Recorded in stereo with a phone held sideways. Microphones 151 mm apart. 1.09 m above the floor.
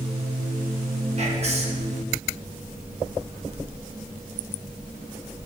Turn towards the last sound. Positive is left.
turn(degrees=-45)  # may be behind; listen again after turning